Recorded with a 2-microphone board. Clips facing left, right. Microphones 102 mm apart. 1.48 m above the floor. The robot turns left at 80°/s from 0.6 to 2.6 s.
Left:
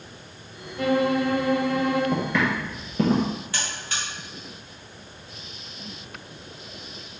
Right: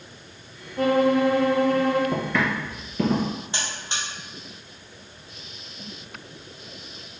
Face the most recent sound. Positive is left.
turn(degrees=-25)  # may be behind; listen again after turning